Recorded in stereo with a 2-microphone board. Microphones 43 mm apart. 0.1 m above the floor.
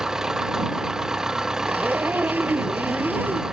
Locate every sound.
0.0 s an engine running: 15° right (ahead or behind)
1.7 s a zipper: 50° right (ahead or behind)